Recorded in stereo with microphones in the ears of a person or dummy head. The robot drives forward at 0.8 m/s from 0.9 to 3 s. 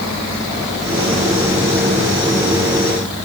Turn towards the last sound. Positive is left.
No sound to turn to.